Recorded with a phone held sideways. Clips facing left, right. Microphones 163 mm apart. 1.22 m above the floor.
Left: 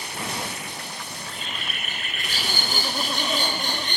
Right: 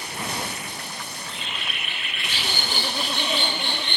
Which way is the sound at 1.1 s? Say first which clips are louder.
Even; 40° left (ahead or behind).